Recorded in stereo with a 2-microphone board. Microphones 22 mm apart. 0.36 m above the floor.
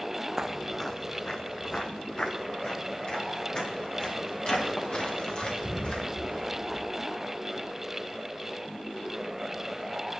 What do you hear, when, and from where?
0.4 s footsteps: 20° right (ahead or behind), 0.5 m; by 6.8 s 45° left (ahead or behind), 6.5 m